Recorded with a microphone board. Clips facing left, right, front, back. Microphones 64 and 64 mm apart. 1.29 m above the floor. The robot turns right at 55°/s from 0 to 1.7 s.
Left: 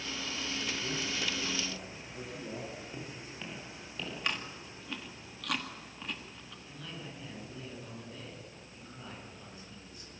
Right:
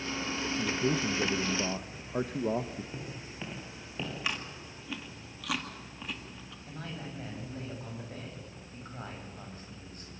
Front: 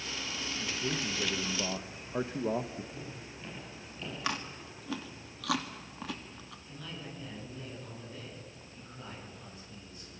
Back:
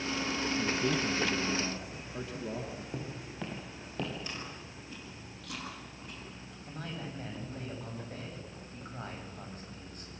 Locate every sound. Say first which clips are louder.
0.6 s a man speaking: right 9 dB, back 3 dB; 120° right, 1.1 m; by 2.8 s 60° right, 1.1 m
2.9 s footsteps: right 2 dB, back 4 dB; 170° right, 7 m; by 4.1 s 155° right, 7.5 m
4.2 s chewing: even, front 6 dB; straight ahead, 2 m
6.7 s a man speaking: right 4 dB, back 4 dB; 135° right, 7.5 m